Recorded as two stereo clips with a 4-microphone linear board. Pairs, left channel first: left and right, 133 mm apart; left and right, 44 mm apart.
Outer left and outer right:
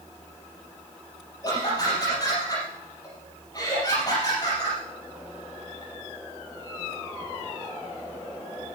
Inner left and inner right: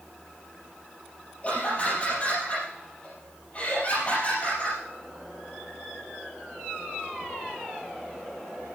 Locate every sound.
1.4 s laughter: 30° left (ahead or behind), 4.5 m